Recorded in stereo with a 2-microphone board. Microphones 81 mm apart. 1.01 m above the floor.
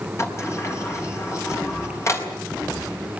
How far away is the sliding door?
About 4 m.